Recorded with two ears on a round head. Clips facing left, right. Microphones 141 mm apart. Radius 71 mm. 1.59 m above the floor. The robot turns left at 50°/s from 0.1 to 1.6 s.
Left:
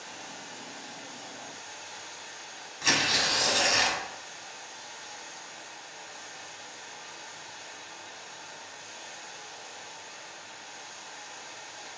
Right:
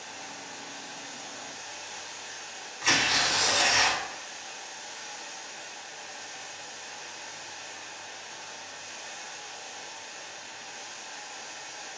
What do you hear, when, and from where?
0.0 s running water: 50° left, 0.8 m; by 12.0 s 25° right, 0.8 m
2.8 s tearing paper: 45° left (ahead or behind), 0.7 m